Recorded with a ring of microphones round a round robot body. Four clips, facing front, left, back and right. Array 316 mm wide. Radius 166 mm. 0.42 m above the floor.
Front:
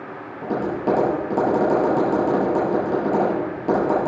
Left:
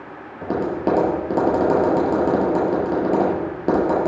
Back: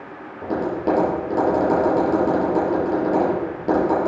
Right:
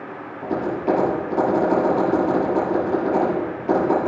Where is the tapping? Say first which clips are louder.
Left 1 dB, back 1 dB; 95° left, 5 m.